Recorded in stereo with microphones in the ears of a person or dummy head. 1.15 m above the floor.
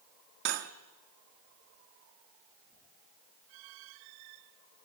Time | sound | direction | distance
0.5 | cutlery clinking | 65° right (ahead or behind) | 1.2 m